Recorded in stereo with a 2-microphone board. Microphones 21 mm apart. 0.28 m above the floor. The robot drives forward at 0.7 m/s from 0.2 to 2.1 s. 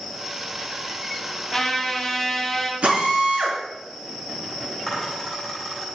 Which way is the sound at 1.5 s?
5° left (ahead or behind).